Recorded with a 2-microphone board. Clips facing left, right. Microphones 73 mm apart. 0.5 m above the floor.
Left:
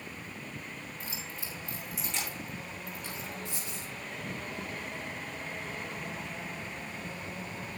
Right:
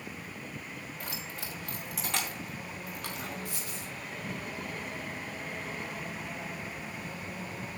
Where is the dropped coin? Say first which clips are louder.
Right 1 dB; 25° left (ahead or behind), 6 m.